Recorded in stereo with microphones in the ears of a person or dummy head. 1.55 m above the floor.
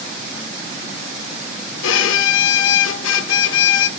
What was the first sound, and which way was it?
A violin, 70° left (ahead or behind).